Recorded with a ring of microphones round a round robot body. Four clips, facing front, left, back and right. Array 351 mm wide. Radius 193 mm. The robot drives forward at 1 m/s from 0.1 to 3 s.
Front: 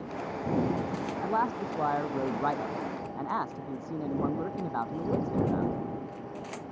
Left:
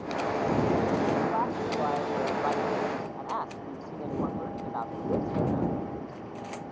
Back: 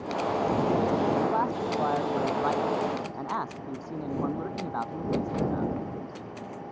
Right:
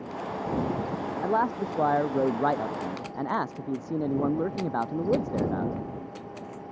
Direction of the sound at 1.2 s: 85° right.